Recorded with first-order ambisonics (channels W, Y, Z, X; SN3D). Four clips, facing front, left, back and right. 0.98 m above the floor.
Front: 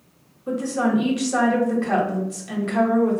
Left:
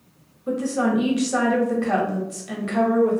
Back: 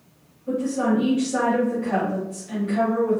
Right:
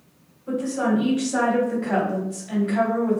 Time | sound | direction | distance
0.5 | a woman speaking | 45° left | 1.3 m